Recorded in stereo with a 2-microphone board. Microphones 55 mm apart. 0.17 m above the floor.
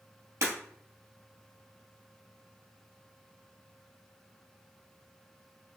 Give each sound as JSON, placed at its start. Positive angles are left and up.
{"t": 0.4, "sound": "breaking glass", "side_deg": -55, "distance_m": 2.5}